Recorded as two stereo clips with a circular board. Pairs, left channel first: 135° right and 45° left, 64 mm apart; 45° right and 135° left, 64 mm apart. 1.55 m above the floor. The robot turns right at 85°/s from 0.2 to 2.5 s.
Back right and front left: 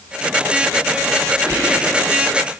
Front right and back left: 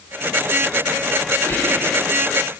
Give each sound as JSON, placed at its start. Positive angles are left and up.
{"t": 1.5, "sound": "whispering", "azimuth_deg": 10, "distance_m": 0.8}